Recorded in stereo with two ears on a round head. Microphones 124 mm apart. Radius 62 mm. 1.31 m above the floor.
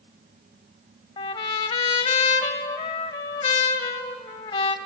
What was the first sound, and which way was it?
A trumpet, 35° left (ahead or behind).